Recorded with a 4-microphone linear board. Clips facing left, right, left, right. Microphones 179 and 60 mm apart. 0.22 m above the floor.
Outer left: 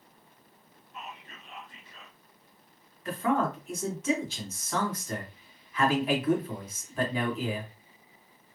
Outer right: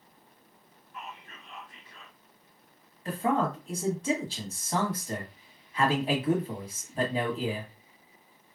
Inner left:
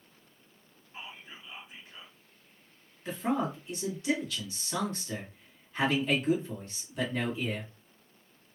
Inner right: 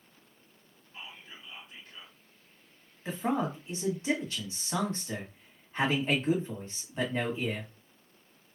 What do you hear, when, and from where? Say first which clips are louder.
0.9 s whispering: even, inner left 1 dB; 25° left (ahead or behind), 1.3 m
3.0 s a man speaking: even, even; 30° right (ahead or behind), 1.3 m